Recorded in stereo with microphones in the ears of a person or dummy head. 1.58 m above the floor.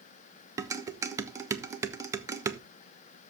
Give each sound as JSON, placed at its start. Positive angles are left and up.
{"t": 0.6, "sound": "dishes clattering", "side_deg": -20, "distance_m": 1.0}